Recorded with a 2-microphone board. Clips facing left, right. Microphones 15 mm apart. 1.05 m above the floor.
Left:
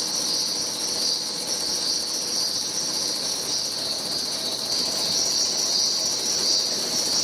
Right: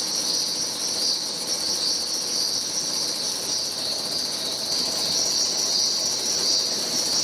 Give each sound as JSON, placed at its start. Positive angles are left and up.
{"t": 0.0, "sound": "an insect", "side_deg": -55, "distance_m": 0.7}